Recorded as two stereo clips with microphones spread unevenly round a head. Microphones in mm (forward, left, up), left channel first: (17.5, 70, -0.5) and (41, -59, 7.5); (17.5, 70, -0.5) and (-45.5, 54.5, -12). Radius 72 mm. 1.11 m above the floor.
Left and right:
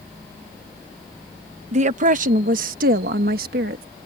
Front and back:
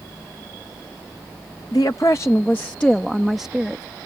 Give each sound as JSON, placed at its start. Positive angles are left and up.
{"t": 1.7, "sound": "a woman speaking", "azimuth_deg": -50}